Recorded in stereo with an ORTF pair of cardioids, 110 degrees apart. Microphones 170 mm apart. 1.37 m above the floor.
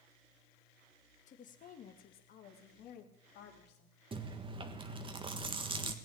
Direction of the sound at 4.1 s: 30° right.